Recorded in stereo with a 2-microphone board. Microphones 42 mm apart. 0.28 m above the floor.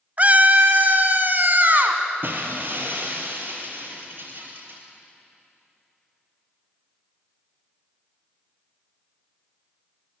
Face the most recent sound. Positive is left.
turn(degrees=-55)  # may be behind; listen again after turning